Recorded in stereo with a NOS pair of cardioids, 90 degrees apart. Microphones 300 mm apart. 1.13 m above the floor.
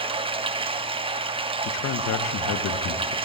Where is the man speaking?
65° left, 0.9 m.